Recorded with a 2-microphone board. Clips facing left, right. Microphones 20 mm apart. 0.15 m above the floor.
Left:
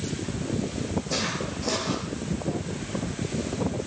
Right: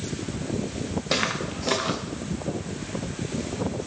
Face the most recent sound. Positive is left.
turn(degrees=-80)